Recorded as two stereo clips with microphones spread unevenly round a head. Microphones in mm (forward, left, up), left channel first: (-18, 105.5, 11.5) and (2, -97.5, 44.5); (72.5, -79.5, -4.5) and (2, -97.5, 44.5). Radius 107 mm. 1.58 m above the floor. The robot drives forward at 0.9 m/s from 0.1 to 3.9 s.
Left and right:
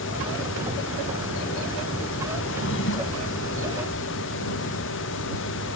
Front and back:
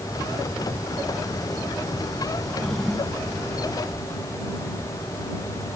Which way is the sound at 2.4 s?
120° left.